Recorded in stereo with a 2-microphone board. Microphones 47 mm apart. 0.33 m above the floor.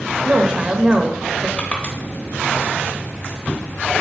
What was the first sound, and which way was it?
A woman speaking, 25° right (ahead or behind).